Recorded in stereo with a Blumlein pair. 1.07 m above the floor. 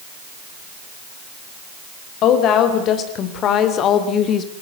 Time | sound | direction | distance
2.2 | a woman speaking | 35° left | 4.5 m